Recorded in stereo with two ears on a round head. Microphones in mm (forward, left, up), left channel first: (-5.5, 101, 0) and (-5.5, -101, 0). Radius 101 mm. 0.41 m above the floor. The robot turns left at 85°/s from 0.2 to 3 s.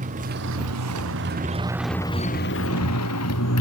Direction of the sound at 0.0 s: 35° right (ahead or behind).